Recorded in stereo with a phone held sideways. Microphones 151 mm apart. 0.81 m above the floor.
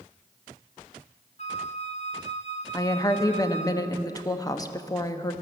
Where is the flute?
45° left (ahead or behind), 0.6 m.